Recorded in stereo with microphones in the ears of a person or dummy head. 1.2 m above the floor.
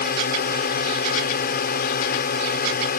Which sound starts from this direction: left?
A drone, at 0.0 s.